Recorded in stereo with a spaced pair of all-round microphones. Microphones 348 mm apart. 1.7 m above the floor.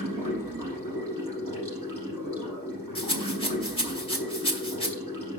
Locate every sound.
0.0 s running water: 65° right (ahead or behind), 5 m
3.0 s a rattle: 15° left (ahead or behind), 1.3 m